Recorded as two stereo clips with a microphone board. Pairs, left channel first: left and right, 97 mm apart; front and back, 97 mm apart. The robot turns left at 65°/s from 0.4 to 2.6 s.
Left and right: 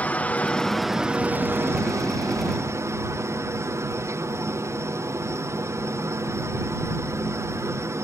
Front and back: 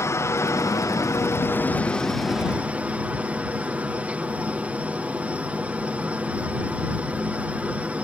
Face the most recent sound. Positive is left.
turn(degrees=-115)